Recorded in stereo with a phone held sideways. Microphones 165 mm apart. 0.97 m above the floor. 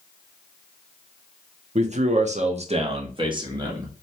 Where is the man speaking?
45° right (ahead or behind), 0.6 m; by 3.9 s 25° right (ahead or behind), 1.1 m.